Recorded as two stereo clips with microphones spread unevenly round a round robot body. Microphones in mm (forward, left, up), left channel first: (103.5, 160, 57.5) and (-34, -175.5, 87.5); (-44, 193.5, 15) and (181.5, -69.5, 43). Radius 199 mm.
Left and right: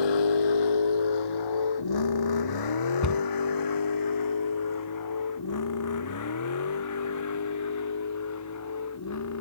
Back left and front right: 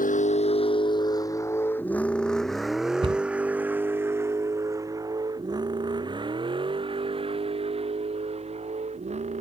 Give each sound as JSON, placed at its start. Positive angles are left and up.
{"t": 0.0, "sound": "a vehicle", "azimuth_deg": 65}
{"t": 3.0, "sound": "a cupboard door", "azimuth_deg": 25}